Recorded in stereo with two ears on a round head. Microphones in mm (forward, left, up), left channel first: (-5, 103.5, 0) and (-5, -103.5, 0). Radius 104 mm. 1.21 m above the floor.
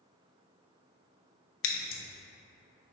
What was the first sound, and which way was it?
Scissors, 60° left (ahead or behind).